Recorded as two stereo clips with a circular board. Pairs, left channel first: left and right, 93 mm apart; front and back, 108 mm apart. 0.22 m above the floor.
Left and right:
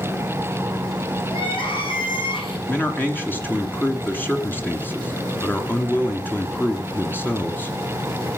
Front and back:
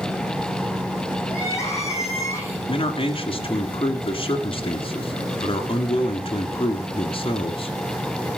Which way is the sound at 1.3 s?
65° left.